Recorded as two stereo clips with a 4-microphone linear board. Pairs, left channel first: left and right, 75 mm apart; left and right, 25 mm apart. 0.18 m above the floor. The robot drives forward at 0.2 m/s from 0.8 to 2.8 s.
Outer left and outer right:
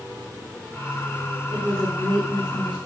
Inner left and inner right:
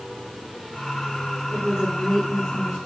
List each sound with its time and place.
1.5 s a woman speaking: 10° left (ahead or behind), 2 m